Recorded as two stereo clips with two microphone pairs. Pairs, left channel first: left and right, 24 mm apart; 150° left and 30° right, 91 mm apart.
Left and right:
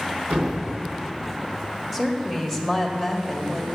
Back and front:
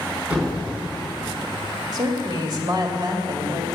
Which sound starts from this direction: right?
A thud, at 0.3 s.